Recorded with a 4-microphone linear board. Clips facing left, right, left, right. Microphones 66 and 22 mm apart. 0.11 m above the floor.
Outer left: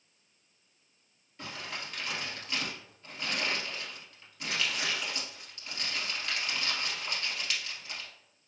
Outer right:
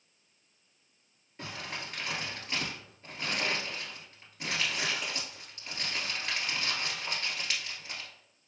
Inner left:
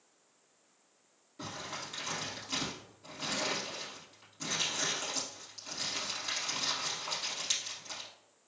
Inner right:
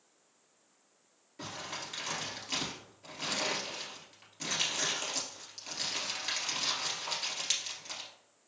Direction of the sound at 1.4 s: 25° right (ahead or behind).